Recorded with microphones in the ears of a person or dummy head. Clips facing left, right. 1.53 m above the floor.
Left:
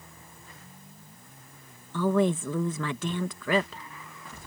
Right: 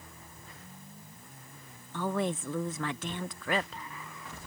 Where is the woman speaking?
80° left.